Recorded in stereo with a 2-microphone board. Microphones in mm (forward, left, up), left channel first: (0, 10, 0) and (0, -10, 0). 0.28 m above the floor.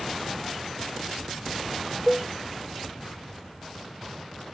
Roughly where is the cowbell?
Centre.